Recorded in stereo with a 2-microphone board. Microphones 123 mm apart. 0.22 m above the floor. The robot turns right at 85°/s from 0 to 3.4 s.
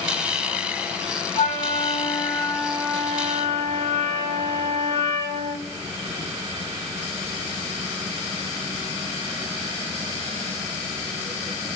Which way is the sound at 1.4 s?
60° left.